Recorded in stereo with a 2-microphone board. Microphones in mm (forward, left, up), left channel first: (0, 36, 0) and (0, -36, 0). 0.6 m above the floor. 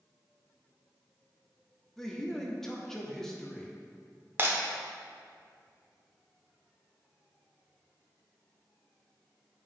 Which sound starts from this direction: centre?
A man speaking, at 2.0 s.